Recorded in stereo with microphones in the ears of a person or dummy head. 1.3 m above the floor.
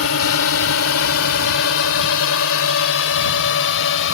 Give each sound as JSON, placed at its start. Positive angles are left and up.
{"t": 0.0, "sound": "a drone", "side_deg": 80}